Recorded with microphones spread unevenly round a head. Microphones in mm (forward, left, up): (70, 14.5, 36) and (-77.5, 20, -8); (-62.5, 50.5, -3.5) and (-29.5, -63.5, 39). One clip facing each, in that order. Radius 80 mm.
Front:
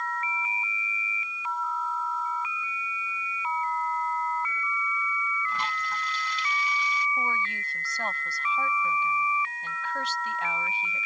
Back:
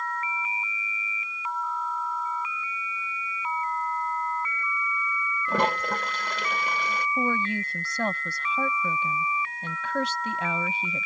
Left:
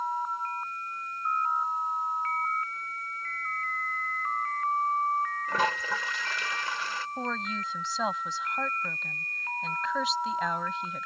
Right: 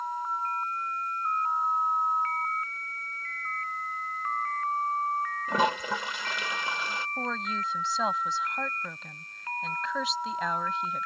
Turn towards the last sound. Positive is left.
turn(degrees=-160)